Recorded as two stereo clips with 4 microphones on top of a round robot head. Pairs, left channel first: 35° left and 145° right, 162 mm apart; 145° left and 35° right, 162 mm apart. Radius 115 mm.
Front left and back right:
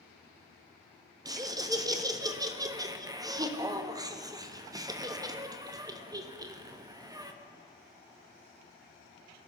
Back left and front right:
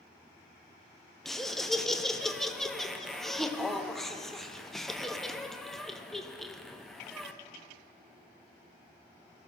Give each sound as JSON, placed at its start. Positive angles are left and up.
{"t": 1.2, "sound": "laughter", "azimuth_deg": -130, "distance_m": 0.7}